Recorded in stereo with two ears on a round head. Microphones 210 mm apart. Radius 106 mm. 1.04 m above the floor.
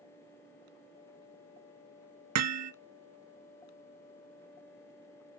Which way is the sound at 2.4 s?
70° right (ahead or behind).